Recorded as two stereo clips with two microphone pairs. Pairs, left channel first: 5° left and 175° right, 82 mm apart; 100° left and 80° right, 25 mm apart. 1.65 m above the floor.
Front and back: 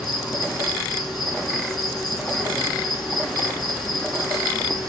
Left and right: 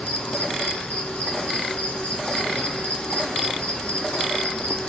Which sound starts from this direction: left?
An insect, at 0.0 s.